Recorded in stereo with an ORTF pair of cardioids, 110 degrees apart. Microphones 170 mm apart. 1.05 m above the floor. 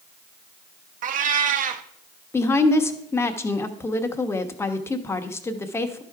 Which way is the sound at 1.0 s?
55° right.